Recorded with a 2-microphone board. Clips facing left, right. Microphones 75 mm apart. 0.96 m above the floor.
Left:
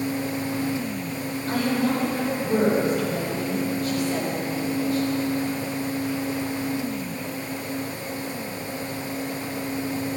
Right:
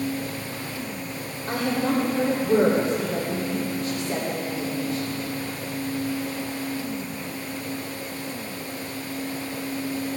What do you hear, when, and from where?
1.5 s a woman speaking: 30° right (ahead or behind), 3 m